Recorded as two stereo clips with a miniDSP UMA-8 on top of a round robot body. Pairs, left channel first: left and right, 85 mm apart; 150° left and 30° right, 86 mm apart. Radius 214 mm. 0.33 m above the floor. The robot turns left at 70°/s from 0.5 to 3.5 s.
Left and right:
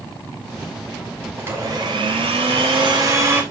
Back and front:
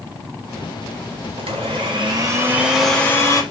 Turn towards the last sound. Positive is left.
turn(degrees=-170)